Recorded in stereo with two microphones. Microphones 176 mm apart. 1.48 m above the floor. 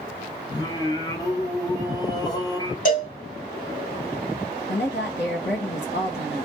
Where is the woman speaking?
85° left, 1.3 m.